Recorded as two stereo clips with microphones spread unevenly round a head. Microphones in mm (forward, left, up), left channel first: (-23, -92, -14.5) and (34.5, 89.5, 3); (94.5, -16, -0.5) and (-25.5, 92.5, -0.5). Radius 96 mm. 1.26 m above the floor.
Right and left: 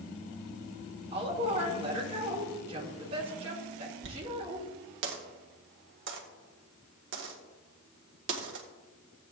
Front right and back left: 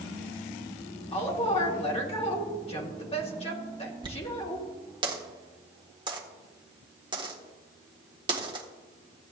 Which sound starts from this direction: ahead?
A woman speaking, at 1.1 s.